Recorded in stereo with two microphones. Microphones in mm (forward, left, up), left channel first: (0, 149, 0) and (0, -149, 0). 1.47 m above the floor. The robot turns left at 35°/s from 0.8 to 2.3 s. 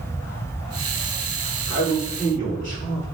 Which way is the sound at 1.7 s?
80° left.